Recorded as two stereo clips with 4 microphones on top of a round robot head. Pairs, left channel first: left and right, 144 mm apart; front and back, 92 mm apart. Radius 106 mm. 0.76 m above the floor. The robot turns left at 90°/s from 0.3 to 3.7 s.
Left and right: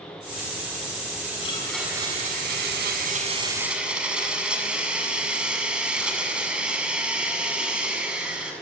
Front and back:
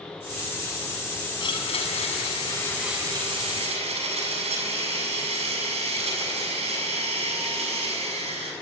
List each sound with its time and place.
1.4 s a blender: 35° left, 7 m; by 8.5 s 175° right, 7 m